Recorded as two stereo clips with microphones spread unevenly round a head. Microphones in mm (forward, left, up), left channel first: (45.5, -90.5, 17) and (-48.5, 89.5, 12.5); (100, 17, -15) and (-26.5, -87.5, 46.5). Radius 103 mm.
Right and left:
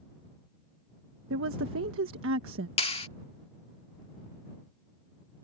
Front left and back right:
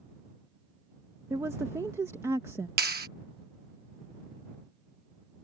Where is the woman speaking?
140° left.